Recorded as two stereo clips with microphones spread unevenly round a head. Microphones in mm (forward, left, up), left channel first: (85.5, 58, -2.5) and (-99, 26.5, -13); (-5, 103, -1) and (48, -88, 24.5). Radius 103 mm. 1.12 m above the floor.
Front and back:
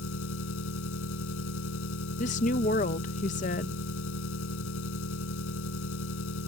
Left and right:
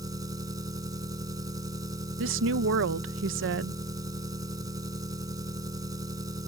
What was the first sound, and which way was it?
An engine running, 5° right.